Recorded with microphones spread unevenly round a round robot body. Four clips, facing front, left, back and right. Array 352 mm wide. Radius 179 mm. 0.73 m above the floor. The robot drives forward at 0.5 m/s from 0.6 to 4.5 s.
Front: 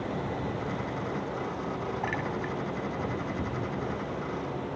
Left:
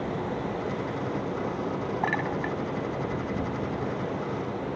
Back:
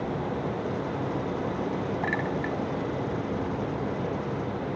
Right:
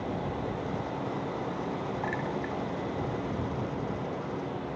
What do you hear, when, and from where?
2.0 s a clink: 105° left; by 2.6 s 110° left